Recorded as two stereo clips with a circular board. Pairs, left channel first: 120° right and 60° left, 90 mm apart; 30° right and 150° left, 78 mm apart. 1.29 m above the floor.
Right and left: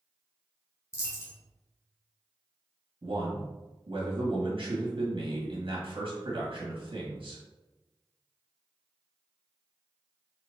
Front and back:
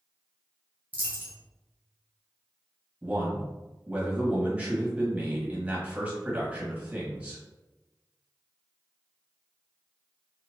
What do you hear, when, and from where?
0.9 s a dropped coin: 160° right, 1.1 m
3.0 s a man speaking: 75° left, 1.6 m